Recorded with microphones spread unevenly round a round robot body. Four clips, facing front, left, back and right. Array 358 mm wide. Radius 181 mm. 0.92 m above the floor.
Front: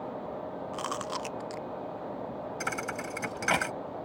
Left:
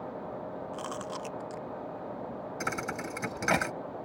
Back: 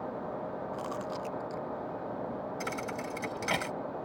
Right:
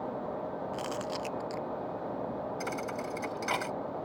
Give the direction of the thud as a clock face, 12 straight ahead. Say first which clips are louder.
Even, front 1 dB; 9 o'clock.